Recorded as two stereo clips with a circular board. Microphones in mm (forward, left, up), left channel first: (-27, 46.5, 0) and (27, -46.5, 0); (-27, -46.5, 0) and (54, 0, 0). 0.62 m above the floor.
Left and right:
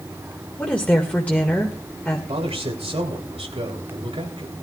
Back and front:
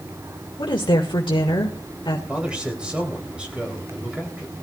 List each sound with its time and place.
0.6 s a woman speaking: 165° right, 1.8 m
2.3 s a man speaking: 45° right, 3 m